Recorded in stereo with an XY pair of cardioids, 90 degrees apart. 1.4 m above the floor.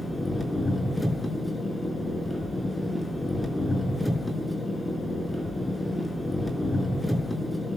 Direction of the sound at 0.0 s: 15° left.